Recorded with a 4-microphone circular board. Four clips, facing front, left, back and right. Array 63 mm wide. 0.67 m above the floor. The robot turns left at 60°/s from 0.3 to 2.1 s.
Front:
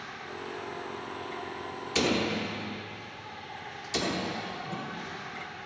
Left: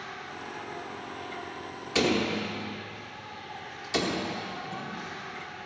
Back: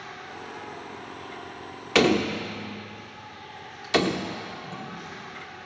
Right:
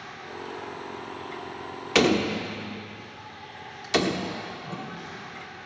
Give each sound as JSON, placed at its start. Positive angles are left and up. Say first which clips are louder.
{"t": 0.0, "sound": "an insect", "louder": "right 1 dB, even", "azimuth_deg": 140, "distance_m": 7.0}
{"t": 1.9, "sound": "a door slam", "louder": "right 4 dB, back 7 dB", "azimuth_deg": -150, "distance_m": 1.0}
{"t": 4.6, "sound": "a whoosh", "louder": "even, front 1 dB", "azimuth_deg": -45, "distance_m": 5.5}